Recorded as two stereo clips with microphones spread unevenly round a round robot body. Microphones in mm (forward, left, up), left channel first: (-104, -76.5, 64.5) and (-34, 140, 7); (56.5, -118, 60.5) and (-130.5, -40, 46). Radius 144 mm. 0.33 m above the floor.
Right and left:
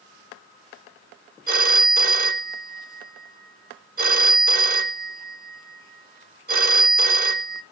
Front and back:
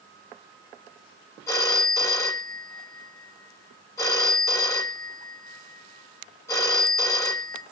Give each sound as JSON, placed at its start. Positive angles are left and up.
{"t": 1.5, "sound": "a phone ringing", "azimuth_deg": 55, "distance_m": 1.1}